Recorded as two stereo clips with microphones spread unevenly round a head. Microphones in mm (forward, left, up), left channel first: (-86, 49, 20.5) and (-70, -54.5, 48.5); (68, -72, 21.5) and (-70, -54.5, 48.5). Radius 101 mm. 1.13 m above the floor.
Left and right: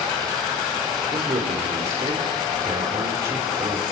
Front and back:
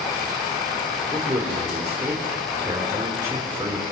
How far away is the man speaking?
About 4.5 m.